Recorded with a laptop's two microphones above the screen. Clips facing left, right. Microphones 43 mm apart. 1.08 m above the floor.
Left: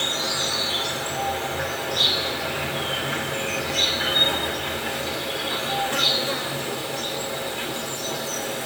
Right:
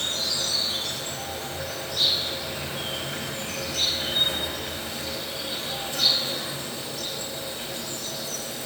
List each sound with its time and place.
0.0 s an insect: 65° left (ahead or behind), 2.5 m